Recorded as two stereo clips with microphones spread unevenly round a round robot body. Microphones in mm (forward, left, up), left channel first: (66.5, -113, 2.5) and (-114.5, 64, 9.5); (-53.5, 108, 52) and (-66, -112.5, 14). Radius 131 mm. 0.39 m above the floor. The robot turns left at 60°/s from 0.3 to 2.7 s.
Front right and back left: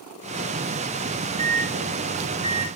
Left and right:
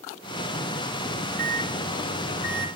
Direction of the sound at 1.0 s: 160° right.